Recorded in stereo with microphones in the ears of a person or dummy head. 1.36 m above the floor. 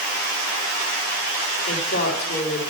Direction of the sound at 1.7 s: 50° left (ahead or behind).